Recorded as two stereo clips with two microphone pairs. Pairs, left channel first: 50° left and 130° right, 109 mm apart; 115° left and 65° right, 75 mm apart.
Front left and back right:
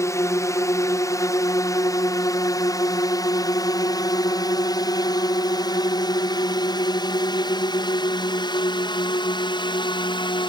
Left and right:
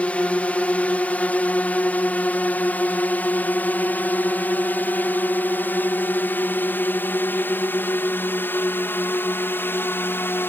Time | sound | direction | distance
0.0 | a drone | 60° left | ?